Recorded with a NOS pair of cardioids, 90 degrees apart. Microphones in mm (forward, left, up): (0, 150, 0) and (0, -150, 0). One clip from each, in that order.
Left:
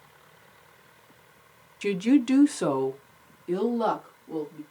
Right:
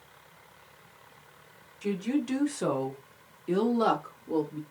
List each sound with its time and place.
1.8 s a woman speaking: 55° left, 0.7 m; by 4.6 s 35° right, 1.3 m